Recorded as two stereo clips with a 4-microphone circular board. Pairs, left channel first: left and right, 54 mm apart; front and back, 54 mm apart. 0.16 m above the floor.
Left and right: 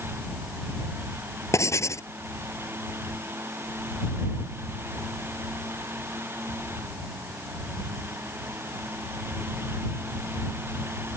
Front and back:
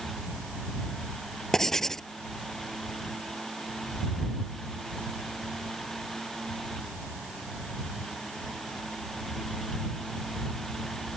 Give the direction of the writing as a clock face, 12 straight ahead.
9 o'clock.